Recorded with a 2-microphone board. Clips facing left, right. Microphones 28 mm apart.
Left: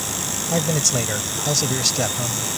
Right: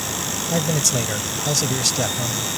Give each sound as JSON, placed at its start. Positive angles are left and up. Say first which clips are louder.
{"t": 0.5, "sound": "a man speaking", "louder": "even", "side_deg": 5}